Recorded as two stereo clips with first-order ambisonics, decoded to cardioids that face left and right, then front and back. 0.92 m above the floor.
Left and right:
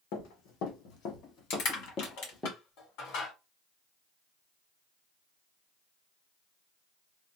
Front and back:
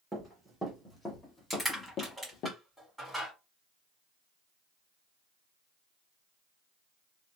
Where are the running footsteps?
100° left, 1.9 m; by 2.5 s 5° left, 1.1 m.